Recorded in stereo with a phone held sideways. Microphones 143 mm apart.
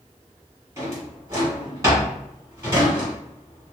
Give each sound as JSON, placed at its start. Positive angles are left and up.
{"t": 0.8, "sound": "a drawer", "side_deg": -20, "distance_m": 1.4}